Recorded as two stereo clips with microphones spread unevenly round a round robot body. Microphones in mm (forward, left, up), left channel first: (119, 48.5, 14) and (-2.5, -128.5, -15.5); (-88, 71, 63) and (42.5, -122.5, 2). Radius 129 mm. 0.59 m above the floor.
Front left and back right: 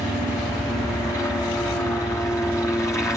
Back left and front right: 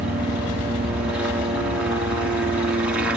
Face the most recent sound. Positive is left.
turn(degrees=-20)